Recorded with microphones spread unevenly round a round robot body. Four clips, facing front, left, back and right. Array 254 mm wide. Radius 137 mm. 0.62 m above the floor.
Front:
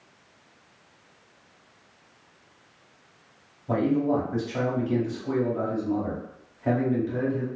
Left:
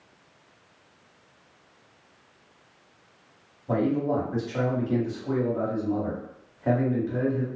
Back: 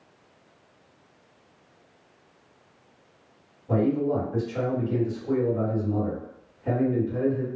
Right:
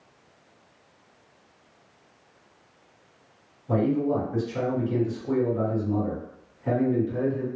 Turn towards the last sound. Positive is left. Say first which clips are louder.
# right 1 dB, even
turn(degrees=45)